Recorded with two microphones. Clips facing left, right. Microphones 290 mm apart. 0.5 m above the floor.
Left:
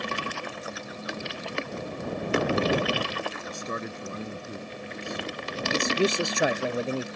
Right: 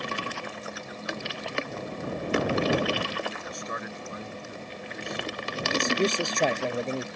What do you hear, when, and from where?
3.5 s a man speaking: 30° left (ahead or behind)
5.7 s a man speaking: 10° left (ahead or behind)